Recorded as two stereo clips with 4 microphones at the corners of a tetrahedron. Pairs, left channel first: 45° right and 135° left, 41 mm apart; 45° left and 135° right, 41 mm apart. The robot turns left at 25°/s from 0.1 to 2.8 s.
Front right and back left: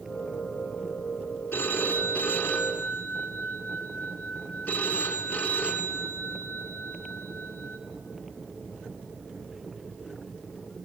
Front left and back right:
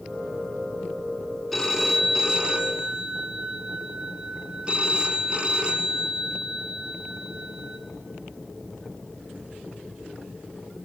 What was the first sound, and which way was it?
A phone ringing, 45° right.